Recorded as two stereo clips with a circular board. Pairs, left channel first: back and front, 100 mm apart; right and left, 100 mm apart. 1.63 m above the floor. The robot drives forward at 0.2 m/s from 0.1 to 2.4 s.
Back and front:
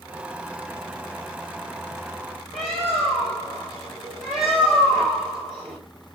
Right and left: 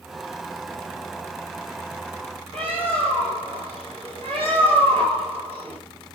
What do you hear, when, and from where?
2.5 s a bird: 85° left, 4 m